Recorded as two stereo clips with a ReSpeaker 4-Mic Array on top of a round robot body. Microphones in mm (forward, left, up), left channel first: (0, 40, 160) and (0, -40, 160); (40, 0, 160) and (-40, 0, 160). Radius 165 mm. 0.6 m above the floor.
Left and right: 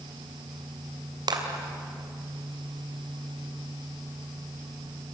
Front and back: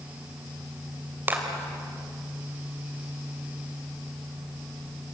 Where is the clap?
115° right, 3 m.